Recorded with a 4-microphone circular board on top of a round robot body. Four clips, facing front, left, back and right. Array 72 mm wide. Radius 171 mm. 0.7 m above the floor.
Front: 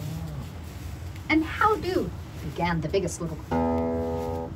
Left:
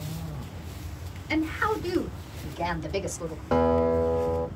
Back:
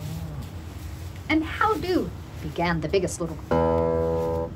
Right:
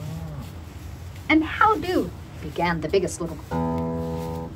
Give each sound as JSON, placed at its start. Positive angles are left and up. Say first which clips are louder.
{"t": 1.3, "sound": "a woman speaking", "louder": "right 8 dB, even", "azimuth_deg": -100, "distance_m": 2.0}
{"t": 3.5, "sound": "a guitar", "louder": "left 5 dB, back 4 dB", "azimuth_deg": 145, "distance_m": 1.7}